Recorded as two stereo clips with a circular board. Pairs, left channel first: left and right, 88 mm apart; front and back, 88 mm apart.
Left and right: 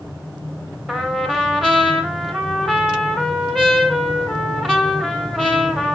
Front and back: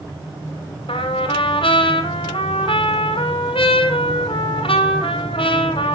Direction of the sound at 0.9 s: Straight ahead.